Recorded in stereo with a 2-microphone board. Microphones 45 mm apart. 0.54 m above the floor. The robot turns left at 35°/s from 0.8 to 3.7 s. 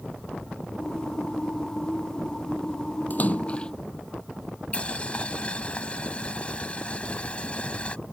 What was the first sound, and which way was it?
A splash, 45° left (ahead or behind).